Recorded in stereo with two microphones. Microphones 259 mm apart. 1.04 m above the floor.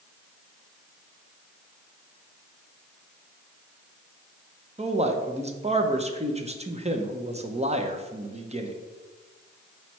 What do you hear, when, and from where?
4.8 s a man speaking: 25° right (ahead or behind), 0.8 m